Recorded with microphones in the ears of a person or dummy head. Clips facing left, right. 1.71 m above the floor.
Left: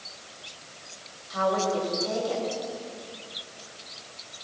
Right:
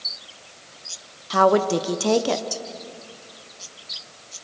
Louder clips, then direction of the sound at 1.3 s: Right 8 dB; 70° right (ahead or behind).